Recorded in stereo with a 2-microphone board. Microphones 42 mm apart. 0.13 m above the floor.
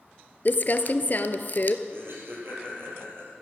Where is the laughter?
65° right (ahead or behind), 4 m.